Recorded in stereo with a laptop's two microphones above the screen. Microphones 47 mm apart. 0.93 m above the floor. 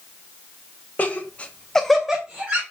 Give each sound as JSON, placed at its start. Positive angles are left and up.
{"t": 1.0, "sound": "laughter", "side_deg": 35, "distance_m": 1.1}